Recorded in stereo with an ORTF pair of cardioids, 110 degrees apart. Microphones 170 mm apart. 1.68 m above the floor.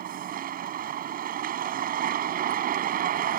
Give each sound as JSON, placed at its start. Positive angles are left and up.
{"t": 0.0, "sound": "a vehicle", "azimuth_deg": -60}